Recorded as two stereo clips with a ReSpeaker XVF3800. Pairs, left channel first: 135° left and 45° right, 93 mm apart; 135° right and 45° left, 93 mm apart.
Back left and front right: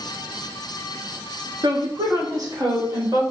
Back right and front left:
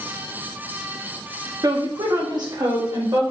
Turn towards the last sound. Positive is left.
turn(degrees=5)